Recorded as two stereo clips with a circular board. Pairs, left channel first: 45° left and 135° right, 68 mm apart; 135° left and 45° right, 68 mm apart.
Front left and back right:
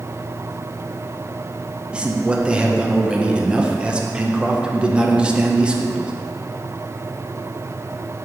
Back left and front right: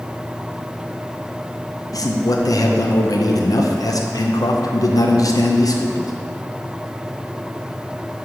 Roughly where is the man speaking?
Behind left.